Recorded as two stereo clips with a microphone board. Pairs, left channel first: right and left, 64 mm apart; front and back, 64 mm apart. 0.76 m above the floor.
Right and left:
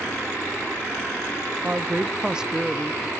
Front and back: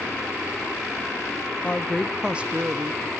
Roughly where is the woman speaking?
Ahead left.